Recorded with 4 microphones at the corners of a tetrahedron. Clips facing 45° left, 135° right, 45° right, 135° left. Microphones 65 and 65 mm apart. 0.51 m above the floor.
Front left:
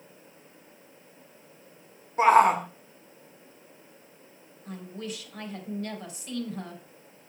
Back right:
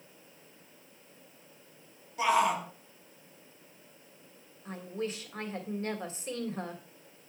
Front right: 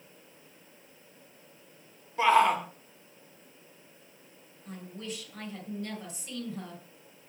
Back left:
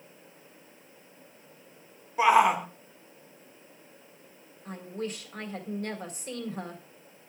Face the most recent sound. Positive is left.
turn(degrees=170)